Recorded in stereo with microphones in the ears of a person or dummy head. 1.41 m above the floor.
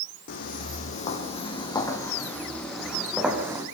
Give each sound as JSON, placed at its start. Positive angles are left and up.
{"t": 0.3, "sound": "footsteps", "side_deg": 55, "distance_m": 3.5}